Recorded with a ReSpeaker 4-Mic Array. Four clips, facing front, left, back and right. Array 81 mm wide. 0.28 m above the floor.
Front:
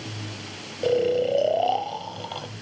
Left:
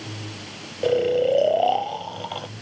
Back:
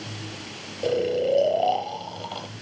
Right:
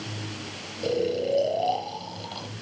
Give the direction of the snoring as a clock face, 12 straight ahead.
9 o'clock.